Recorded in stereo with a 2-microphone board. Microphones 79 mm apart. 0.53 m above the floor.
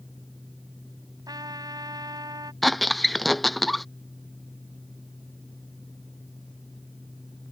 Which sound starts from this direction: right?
A trumpet, at 1.3 s.